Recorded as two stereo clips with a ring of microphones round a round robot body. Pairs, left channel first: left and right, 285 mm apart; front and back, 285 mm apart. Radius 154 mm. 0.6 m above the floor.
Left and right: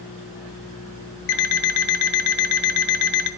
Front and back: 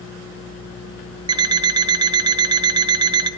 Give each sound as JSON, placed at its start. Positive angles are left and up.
{"t": 1.3, "sound": "an alarm clock", "azimuth_deg": 105, "distance_m": 1.1}